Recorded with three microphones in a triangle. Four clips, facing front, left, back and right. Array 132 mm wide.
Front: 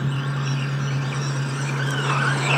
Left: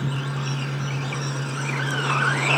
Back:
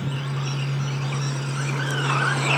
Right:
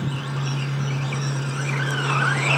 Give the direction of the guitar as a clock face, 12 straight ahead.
I don't hear a guitar.